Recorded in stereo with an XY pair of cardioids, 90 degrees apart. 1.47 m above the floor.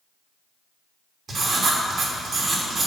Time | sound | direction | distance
1.3 | writing | 60° right | 3 m